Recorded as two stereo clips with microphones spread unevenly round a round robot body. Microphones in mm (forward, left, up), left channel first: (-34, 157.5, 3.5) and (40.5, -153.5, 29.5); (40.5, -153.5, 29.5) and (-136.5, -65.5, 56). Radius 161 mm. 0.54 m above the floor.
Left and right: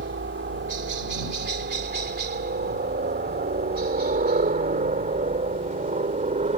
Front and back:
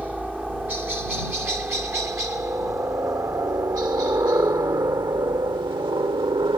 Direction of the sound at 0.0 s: 120° right.